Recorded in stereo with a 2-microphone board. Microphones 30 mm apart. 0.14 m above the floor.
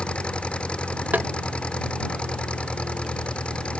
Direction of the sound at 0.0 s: 40° left (ahead or behind).